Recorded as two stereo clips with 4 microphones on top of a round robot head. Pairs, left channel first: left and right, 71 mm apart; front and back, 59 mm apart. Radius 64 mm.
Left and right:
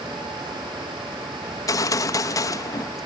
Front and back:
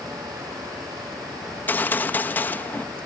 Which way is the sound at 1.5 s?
60° left.